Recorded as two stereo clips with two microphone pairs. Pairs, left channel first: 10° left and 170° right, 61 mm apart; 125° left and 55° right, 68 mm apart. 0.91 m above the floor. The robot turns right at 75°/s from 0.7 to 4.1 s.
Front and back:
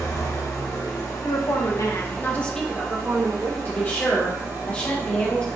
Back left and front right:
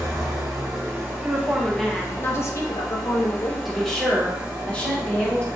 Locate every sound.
0.0 s an engine running: 20° right, 1.0 m; by 5.6 s 125° right, 1.0 m
1.2 s a woman speaking: 10° right, 0.6 m; by 3.5 s 165° left, 0.6 m
3.6 s a woman speaking: 30° left, 0.9 m; by 5.5 s 65° left, 0.9 m